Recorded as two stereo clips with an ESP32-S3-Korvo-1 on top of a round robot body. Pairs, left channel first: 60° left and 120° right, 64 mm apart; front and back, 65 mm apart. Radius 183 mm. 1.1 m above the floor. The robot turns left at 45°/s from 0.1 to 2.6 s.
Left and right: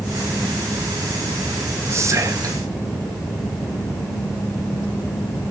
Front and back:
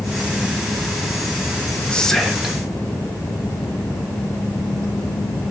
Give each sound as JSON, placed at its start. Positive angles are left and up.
{"t": 1.9, "sound": "whispering", "azimuth_deg": -75, "distance_m": 1.4}